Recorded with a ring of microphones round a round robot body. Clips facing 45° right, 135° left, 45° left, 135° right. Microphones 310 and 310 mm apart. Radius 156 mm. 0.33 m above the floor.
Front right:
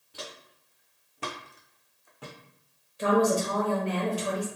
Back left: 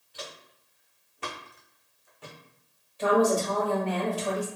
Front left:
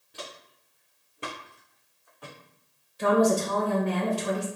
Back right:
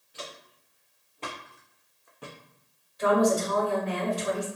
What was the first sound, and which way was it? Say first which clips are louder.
Footsteps: even, even; straight ahead.